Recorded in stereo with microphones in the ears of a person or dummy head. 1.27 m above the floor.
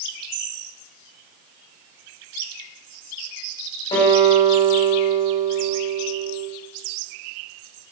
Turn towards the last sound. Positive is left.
turn(degrees=25)  # may be behind; listen again after turning